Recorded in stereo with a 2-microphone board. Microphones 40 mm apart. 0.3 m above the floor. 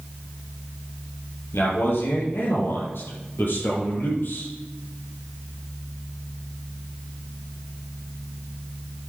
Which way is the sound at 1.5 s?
75° left (ahead or behind).